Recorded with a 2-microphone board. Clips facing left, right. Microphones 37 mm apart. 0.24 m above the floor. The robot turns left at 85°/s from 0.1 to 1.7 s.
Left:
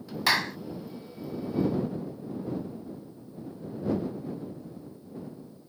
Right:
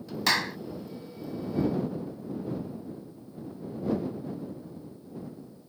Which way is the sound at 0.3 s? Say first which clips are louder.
Left 1 dB; 10° left (ahead or behind).